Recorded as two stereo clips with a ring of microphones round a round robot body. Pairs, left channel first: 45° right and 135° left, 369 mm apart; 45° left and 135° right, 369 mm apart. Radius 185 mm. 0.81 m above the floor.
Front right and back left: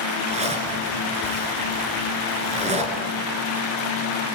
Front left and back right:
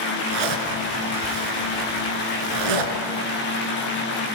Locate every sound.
0.3 s a zipper: 150° right, 4 m